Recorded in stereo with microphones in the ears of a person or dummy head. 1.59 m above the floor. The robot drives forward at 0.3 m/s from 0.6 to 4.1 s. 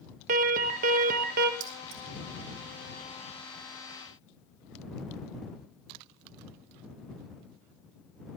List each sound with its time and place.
0.3 s an alarm: 45° right (ahead or behind), 1.9 m; by 1.5 s 50° right (ahead or behind), 1.7 m
1.6 s keys jangling: 80° right, 3.5 m; by 2.0 s 75° right (ahead or behind), 3.5 m